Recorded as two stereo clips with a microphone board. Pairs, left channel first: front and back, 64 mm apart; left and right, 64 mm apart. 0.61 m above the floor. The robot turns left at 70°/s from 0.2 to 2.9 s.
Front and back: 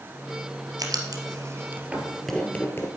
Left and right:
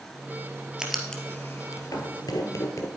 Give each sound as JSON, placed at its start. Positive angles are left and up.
{"t": 0.8, "sound": "writing", "azimuth_deg": -170, "distance_m": 2.0}